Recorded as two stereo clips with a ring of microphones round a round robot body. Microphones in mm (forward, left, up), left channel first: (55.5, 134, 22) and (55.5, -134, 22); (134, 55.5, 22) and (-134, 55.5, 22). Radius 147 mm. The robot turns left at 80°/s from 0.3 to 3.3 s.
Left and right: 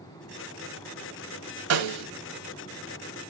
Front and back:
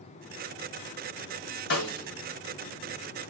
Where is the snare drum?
55° right, 1.9 m; by 2.1 s 85° right, 1.9 m.